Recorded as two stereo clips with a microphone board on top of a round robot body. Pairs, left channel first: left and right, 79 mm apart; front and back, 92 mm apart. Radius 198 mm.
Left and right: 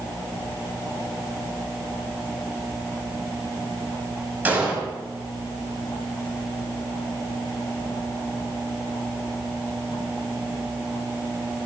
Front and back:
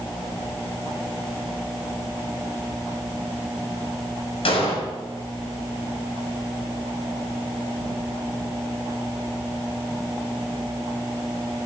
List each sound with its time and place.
4.5 s an explosion: 20° right, 6 m